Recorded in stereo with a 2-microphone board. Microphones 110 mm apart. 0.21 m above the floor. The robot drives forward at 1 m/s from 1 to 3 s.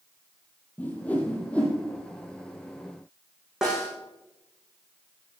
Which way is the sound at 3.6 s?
5° right (ahead or behind).